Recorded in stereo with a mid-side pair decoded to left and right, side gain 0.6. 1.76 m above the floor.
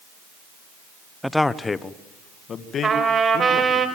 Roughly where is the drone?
I don't hear a drone.